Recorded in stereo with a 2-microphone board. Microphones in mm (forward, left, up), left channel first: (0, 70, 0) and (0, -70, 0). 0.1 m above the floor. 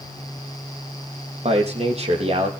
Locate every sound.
1.4 s a man speaking: 50° right (ahead or behind), 4 m